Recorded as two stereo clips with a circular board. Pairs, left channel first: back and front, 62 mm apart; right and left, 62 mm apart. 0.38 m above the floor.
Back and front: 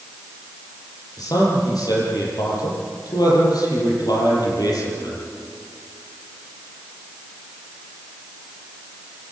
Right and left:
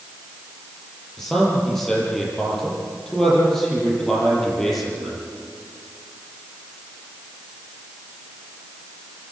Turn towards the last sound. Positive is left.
turn(degrees=-175)